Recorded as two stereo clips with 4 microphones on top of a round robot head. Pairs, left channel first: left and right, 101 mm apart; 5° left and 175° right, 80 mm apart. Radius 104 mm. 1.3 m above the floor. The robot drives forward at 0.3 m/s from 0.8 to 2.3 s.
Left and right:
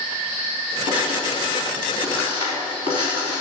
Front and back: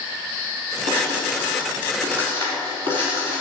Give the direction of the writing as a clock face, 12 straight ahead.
5 o'clock.